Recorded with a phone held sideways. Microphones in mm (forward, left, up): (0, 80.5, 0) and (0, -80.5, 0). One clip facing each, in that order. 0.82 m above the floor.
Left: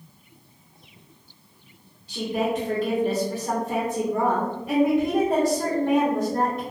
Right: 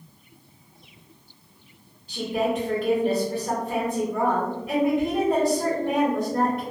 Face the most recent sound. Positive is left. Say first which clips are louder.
# even
turn(degrees=30)  # may be behind; listen again after turning